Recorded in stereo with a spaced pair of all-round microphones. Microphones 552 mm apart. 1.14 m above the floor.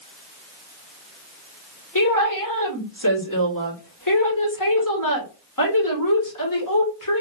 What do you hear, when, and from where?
1.9 s a woman speaking: 35° left (ahead or behind), 2 m